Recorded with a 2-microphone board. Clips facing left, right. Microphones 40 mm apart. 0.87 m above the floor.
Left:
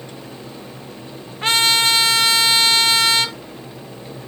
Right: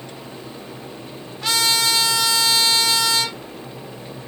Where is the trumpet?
35° left (ahead or behind), 1.1 m.